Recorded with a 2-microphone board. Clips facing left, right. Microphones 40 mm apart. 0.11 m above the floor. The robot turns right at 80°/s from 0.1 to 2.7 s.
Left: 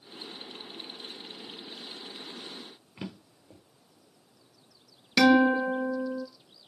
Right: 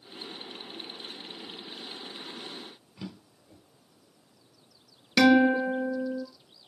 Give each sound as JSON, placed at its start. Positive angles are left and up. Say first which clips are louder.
{"t": 3.0, "sound": "a drawer", "louder": "left 2 dB", "side_deg": 45, "distance_m": 1.2}
{"t": 5.2, "sound": "a guitar", "louder": "even", "side_deg": -10, "distance_m": 1.1}